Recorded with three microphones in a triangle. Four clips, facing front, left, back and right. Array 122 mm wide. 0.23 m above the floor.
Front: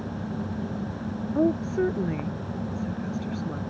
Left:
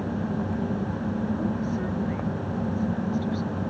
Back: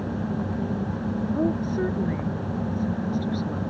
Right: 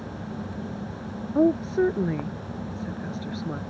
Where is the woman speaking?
80° right.